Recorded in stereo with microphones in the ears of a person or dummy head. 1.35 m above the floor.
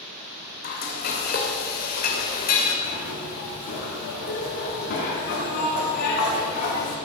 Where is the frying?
50° left (ahead or behind), 2.5 m.